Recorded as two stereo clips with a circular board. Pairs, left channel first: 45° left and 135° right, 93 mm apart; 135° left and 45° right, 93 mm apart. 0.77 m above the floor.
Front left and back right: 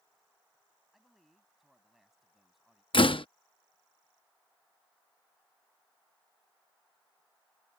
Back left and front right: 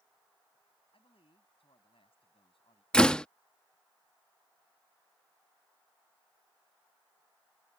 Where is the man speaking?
135° left.